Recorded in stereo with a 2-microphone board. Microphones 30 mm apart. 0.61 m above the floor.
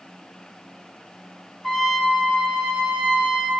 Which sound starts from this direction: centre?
A trumpet, at 1.6 s.